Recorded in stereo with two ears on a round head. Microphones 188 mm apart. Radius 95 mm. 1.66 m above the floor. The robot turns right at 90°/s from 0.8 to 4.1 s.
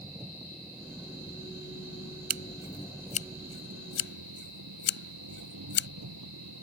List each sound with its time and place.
0.0 s an engine running: 15° right; by 6.6 s 75° right
2.3 s scissors: 45° right (ahead or behind); by 5.9 s 60° left (ahead or behind)